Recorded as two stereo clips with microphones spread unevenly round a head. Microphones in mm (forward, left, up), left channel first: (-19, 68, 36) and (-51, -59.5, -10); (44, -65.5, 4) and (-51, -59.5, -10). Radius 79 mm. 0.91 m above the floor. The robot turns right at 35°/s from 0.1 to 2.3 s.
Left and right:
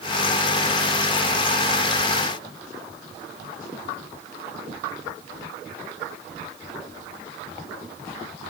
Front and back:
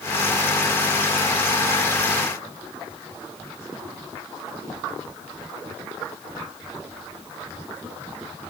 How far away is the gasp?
No gasp in this recording.